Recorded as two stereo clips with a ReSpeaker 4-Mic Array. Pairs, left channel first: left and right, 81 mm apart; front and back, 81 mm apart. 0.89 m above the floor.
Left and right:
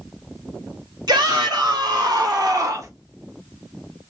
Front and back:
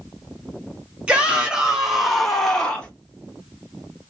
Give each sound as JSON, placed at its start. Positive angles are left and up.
{"t": 1.1, "sound": "a shout", "azimuth_deg": -105, "distance_m": 1.7}